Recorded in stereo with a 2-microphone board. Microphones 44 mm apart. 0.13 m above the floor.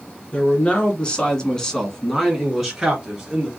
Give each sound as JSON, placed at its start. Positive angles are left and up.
{"t": 0.3, "sound": "a man speaking", "side_deg": 25, "distance_m": 2.0}